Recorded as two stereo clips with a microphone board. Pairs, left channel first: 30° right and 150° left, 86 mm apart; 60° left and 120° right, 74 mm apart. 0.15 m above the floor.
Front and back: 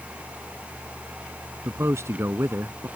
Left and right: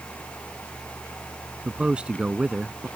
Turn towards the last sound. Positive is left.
turn(degrees=175)